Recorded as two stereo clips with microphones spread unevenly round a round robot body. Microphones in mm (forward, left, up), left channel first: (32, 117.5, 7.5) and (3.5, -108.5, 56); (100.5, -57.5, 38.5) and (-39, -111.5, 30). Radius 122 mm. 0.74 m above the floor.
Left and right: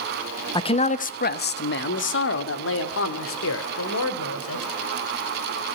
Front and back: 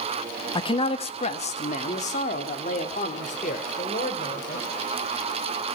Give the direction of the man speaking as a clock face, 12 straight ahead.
10 o'clock.